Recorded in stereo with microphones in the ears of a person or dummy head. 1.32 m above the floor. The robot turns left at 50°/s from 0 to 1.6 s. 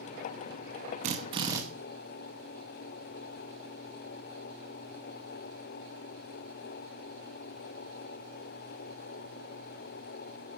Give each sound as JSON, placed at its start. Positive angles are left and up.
{"t": 1.0, "sound": "a drill", "side_deg": -35, "distance_m": 0.9}